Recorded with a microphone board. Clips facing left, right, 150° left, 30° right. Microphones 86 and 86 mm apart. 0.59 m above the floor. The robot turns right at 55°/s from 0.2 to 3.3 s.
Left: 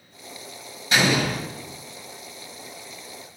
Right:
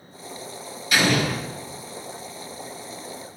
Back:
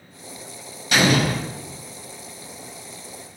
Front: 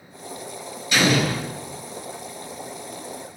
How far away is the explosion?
About 1.1 m.